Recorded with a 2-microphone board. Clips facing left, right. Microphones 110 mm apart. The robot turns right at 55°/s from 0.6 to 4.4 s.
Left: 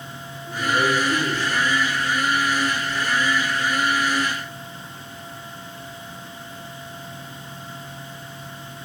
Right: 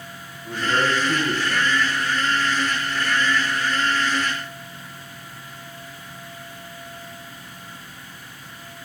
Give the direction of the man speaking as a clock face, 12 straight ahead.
3 o'clock.